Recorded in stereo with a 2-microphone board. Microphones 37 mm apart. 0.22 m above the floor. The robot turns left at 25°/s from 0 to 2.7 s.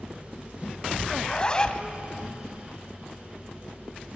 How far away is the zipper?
About 0.6 m.